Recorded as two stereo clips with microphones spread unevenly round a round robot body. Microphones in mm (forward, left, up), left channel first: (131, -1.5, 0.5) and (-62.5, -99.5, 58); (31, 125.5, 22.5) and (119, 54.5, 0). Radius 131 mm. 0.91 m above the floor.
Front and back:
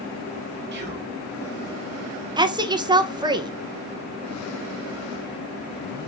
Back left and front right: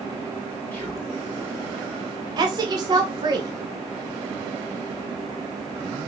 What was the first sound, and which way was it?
Whispering, 135° right.